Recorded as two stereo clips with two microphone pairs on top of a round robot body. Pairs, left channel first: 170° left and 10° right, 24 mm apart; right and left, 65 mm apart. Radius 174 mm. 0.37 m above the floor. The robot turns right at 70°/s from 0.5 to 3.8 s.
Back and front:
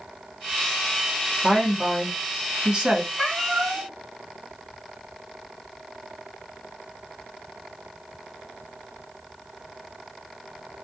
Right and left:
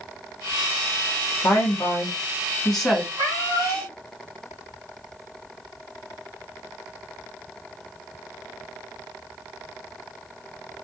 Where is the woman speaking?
85° right, 1.4 m; by 3.1 s 25° left, 1.4 m.